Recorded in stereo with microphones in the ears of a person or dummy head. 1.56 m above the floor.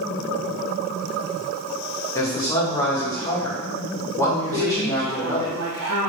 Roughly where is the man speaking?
Centre.